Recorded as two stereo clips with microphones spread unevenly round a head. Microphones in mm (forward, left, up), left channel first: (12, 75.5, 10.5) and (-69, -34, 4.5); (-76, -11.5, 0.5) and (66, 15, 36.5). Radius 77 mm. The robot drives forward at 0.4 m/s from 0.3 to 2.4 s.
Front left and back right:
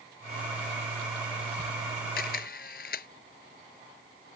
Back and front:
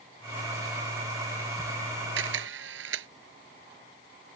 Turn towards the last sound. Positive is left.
turn(degrees=15)